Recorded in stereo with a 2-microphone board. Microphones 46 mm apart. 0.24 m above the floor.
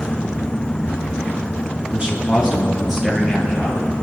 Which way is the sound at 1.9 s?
25° right (ahead or behind).